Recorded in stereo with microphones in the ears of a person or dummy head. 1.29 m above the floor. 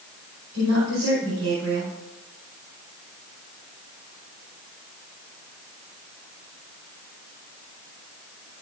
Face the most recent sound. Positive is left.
turn(degrees=-85)